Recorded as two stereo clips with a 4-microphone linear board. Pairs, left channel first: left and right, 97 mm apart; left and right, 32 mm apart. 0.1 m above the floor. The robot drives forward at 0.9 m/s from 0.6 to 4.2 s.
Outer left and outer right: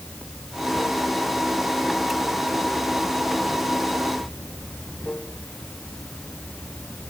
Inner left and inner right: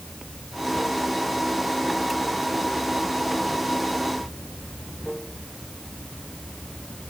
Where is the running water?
10° left (ahead or behind).